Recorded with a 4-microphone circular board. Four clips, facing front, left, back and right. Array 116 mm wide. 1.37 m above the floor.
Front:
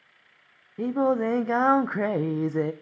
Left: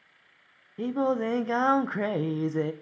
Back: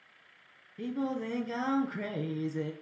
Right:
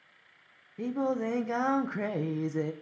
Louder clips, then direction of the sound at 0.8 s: Left 4 dB, front 10 dB; 20° left.